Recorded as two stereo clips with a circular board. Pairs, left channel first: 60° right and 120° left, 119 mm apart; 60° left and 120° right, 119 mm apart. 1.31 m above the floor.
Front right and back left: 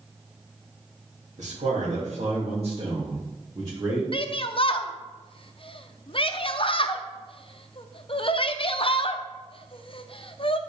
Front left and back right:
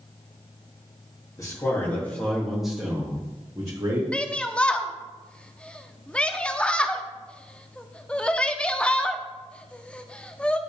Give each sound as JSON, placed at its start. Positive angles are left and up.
{"t": 1.4, "sound": "a man speaking", "azimuth_deg": 120, "distance_m": 2.0}
{"t": 4.1, "sound": "a shout", "azimuth_deg": -20, "distance_m": 0.6}